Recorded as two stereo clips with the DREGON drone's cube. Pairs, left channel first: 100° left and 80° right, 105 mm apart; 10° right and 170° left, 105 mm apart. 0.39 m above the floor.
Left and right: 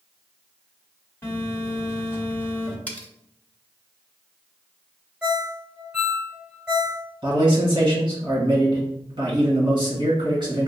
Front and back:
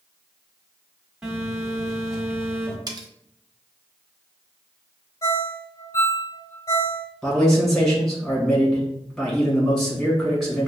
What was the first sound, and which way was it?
A phone buzzing, 95° left.